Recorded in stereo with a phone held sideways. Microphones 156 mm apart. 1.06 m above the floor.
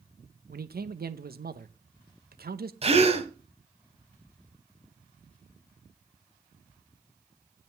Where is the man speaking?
80° right, 0.8 m.